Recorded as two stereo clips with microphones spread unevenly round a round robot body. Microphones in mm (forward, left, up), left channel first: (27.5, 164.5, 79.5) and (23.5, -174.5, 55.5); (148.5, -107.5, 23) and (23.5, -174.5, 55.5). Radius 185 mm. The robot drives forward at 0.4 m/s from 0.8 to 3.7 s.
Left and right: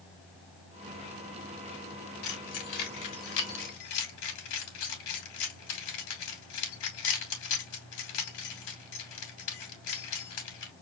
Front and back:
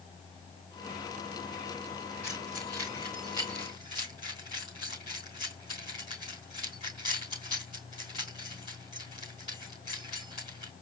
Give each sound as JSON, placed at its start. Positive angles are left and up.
{"t": 2.2, "sound": "keys jangling", "azimuth_deg": 120, "distance_m": 2.5}